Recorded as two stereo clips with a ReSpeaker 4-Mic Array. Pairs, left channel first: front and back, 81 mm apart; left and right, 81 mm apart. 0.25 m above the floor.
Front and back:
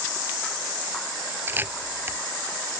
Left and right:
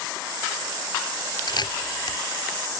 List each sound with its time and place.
1.5 s a camera shutter: 115° left